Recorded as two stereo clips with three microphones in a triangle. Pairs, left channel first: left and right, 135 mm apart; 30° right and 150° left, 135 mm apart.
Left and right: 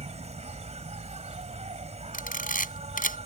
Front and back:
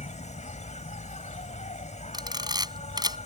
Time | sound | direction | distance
0.0 | an insect | 55° right | ?
2.1 | a camera shutter | 90° left | ?